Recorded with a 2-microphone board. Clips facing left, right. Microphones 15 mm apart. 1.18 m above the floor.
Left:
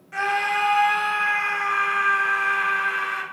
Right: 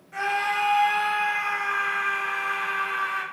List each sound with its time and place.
0.1 s a scream: 35° left (ahead or behind), 0.6 m